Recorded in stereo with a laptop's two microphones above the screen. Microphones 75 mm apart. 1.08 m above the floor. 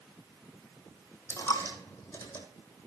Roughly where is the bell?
No bell in this recording.